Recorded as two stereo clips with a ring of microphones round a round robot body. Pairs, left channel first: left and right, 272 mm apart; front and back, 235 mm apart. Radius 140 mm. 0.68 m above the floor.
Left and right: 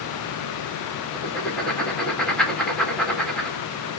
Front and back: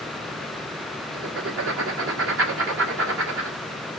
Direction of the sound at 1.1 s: 175° left.